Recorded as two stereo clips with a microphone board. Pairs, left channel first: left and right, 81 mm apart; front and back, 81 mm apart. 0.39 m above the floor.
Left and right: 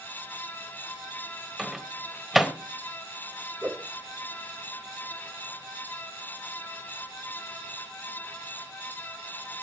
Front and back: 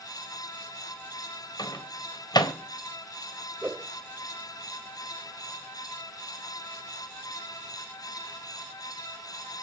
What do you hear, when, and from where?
1.6 s a microwave: 5° right, 1.8 m
3.6 s a whoosh: 145° right, 0.8 m